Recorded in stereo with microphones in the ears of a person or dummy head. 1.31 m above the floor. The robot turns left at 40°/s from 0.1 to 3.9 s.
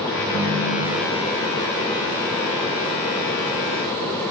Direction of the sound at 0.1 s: 20° left.